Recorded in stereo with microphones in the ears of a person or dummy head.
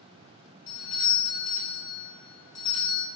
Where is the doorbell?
30° left (ahead or behind), 1.6 m.